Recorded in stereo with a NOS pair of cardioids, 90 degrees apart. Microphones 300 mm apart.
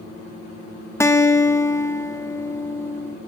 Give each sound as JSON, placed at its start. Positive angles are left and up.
{"t": 1.0, "sound": "a guitar", "azimuth_deg": 10, "distance_m": 1.6}